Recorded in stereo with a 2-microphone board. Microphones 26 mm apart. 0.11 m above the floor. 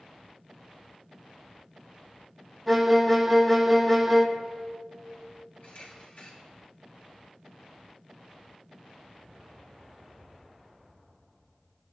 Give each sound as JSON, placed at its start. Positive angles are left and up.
{"t": 2.7, "sound": "a violin", "side_deg": 5, "distance_m": 1.1}
{"t": 5.6, "sound": "a camera shutter", "side_deg": 75, "distance_m": 4.0}